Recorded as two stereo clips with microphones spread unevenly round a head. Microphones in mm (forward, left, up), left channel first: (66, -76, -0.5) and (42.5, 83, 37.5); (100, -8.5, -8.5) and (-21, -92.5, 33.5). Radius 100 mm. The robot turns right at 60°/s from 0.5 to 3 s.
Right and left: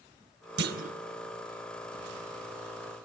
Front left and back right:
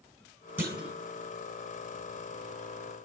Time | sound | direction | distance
0.6 | a clunk | 135° left | 1.9 m